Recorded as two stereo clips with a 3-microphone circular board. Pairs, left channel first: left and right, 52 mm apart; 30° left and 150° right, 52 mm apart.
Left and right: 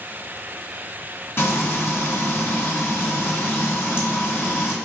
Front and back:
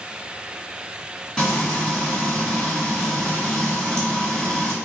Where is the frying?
100° left, 1.0 m.